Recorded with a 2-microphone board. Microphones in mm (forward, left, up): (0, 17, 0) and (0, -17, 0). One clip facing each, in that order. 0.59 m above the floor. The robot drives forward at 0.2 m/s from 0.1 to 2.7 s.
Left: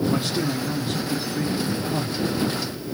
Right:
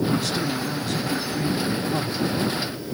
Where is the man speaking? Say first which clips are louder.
Even; 30° left (ahead or behind), 0.8 m; by 2.3 s 25° left (ahead or behind), 1.0 m.